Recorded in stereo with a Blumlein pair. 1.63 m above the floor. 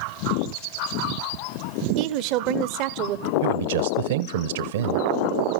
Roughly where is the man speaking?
Ahead right.